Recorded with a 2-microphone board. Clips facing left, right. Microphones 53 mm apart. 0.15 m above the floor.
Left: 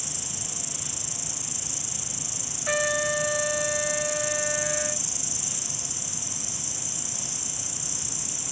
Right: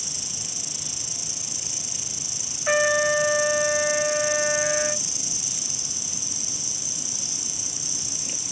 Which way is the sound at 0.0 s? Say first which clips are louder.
Left 1 dB; 55° right (ahead or behind).